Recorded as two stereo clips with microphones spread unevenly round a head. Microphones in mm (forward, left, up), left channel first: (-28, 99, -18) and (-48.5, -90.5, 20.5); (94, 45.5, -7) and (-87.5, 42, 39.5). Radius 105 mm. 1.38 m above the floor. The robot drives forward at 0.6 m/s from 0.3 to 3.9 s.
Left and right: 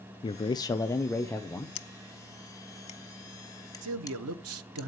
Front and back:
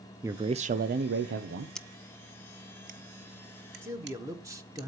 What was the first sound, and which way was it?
A man speaking, 95° left.